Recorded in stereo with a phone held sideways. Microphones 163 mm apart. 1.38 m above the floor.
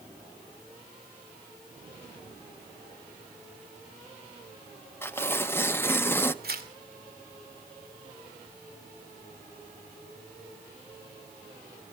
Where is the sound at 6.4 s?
70° right (ahead or behind), 2.5 m.